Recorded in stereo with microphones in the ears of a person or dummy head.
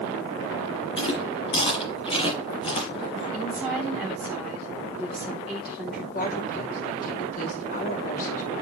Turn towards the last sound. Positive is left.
turn(degrees=45)  # may be behind; listen again after turning